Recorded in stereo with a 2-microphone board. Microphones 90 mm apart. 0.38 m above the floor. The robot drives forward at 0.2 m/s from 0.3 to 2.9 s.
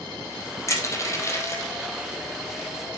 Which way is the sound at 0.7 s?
35° left (ahead or behind).